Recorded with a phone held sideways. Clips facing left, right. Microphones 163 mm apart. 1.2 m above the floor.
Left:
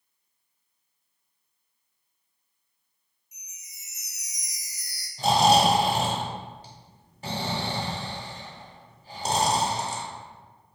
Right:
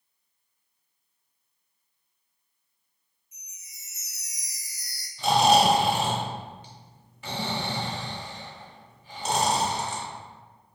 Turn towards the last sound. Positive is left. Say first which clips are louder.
# even
turn(degrees=40)  # may be behind; listen again after turning